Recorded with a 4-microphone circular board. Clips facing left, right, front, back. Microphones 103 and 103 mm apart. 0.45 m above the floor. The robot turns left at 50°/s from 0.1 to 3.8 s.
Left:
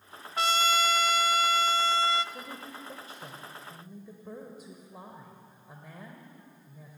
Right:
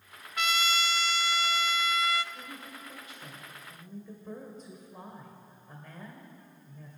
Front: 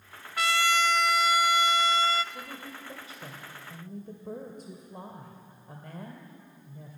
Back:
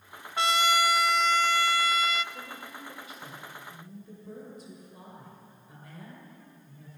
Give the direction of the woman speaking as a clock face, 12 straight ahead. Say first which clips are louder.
Left 3 dB, front 1 dB; 9 o'clock.